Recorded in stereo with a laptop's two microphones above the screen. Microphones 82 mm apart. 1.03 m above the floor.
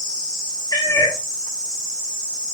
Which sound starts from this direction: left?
A cat meowing, at 0.7 s.